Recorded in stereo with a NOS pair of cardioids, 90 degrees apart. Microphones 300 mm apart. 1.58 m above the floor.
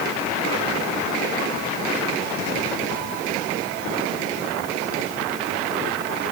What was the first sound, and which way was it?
Only background noise.